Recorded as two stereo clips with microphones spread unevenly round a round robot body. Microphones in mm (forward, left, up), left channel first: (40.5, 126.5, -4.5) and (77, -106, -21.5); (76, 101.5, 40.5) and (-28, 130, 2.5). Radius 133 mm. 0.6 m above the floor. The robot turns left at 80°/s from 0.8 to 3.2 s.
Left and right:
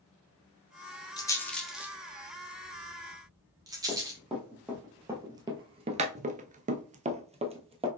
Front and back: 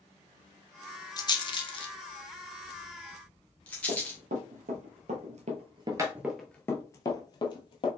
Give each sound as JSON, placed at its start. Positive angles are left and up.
{"t": 1.2, "sound": "a rattle", "azimuth_deg": 40, "distance_m": 1.0}
{"t": 3.9, "sound": "running footsteps", "azimuth_deg": -170, "distance_m": 1.5}